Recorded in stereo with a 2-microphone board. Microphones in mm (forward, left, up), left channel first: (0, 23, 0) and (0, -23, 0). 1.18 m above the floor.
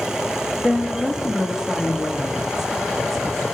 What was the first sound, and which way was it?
A woman speaking, 25° right (ahead or behind).